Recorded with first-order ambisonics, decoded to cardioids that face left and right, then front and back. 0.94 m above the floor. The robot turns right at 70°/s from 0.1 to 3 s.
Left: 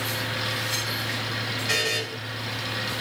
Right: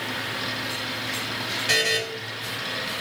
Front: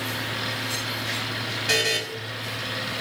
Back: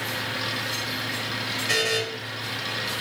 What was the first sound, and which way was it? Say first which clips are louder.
A buzzer: right 3 dB, front 1 dB; 40° right.